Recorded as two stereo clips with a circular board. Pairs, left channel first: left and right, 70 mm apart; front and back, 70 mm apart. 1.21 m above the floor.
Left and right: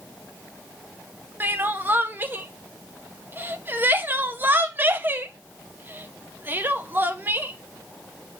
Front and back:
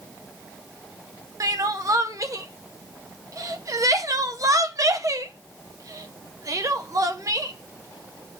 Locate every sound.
1.4 s crying: 150° right, 0.6 m